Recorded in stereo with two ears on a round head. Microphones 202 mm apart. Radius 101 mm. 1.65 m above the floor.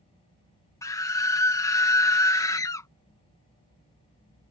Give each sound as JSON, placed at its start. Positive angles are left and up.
{"t": 0.8, "sound": "a scream", "side_deg": 15}